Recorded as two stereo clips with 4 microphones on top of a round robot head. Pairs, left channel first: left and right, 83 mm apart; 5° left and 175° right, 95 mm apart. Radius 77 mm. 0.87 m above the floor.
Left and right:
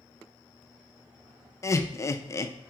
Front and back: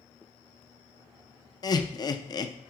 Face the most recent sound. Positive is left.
turn(degrees=40)